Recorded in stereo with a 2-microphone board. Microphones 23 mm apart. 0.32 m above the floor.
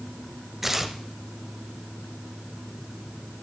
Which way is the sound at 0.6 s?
15° right (ahead or behind).